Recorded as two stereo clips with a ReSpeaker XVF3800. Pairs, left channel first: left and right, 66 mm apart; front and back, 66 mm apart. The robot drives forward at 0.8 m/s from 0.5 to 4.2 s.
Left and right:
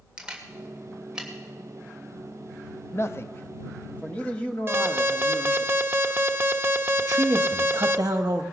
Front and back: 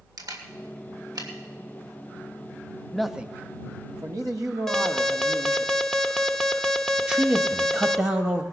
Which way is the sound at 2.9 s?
80° left.